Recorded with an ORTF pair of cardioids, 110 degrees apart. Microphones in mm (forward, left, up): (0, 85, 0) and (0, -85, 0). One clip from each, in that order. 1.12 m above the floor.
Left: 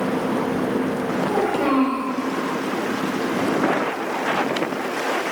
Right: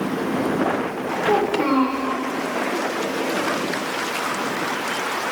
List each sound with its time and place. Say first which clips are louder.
1.2 s a child speaking: right 2 dB; 50° right, 3 m